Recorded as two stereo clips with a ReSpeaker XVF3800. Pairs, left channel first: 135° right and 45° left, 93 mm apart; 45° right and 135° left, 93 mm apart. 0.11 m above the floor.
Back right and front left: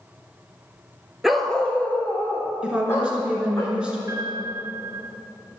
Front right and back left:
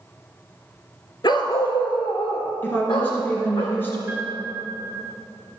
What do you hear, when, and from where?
1.2 s a dog barking: 40° right, 0.7 m; by 3.6 s 75° right, 2.5 m
2.6 s a woman speaking: 15° right, 1.6 m
4.1 s a piano: 75° left, 2 m